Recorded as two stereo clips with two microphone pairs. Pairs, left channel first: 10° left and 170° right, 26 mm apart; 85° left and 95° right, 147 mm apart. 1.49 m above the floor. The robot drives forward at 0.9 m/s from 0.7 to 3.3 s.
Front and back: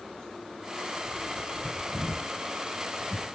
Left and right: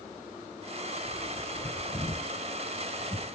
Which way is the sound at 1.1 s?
100° left.